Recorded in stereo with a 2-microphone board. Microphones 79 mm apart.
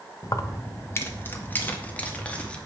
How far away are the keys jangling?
About 1.2 m.